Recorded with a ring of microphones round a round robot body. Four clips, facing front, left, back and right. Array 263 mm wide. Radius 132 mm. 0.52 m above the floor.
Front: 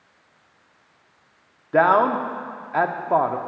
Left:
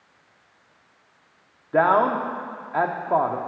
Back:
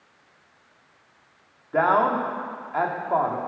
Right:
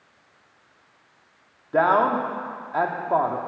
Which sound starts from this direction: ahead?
A man speaking, at 1.7 s.